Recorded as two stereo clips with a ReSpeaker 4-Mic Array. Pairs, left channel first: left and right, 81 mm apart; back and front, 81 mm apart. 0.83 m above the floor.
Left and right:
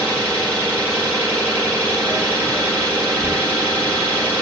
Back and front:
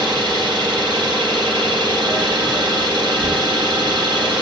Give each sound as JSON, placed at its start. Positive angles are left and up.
{"t": 0.0, "sound": "an engine running", "azimuth_deg": 20, "distance_m": 5.0}